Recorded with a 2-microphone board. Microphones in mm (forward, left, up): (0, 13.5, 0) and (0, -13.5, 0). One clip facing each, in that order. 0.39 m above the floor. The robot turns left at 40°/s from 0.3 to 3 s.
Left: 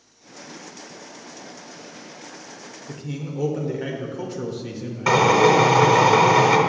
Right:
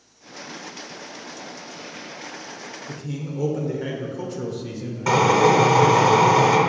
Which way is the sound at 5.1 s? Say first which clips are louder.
Left 1 dB; 25° left (ahead or behind).